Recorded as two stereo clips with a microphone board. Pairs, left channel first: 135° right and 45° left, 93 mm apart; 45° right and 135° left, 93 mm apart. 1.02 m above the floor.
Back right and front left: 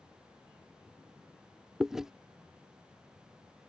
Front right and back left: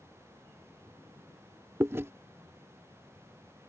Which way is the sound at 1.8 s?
125° left.